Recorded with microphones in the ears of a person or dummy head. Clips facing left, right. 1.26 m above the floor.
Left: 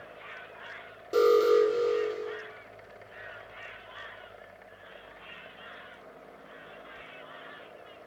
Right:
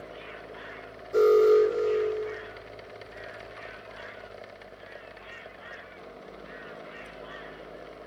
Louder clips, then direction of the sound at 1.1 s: Right 3 dB; 35° left (ahead or behind).